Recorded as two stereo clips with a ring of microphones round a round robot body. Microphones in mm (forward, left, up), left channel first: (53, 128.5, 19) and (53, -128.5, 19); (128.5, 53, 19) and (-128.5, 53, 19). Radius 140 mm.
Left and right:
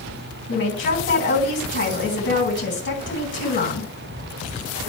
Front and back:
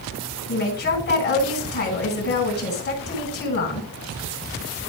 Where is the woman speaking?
45° left, 3.5 m.